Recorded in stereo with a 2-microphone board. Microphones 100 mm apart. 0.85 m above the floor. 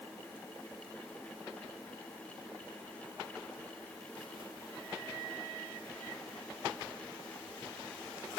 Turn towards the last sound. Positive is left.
No sound to turn to.